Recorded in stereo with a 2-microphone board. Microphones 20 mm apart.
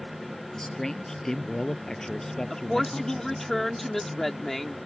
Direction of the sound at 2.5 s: 15° left (ahead or behind).